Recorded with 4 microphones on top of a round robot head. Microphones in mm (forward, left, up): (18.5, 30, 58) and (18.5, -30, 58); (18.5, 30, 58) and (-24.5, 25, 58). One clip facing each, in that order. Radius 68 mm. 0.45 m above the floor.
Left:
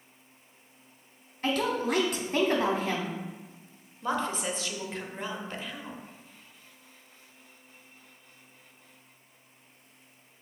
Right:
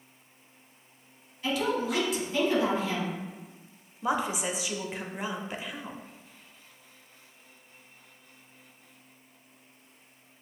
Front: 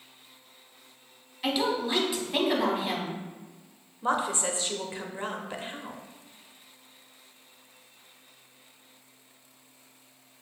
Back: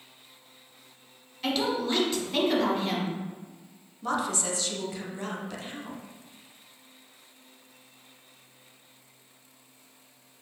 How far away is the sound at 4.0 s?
About 0.7 m.